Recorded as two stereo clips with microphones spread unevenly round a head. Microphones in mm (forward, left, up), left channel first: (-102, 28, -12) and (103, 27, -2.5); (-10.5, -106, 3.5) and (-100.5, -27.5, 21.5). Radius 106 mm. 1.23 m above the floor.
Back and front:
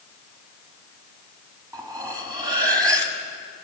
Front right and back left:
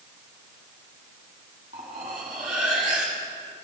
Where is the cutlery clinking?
70° left, 1.3 m.